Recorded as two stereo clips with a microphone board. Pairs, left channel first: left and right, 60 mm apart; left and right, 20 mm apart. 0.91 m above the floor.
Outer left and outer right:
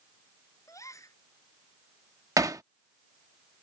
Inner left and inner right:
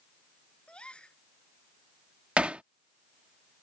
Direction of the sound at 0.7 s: 65° left (ahead or behind).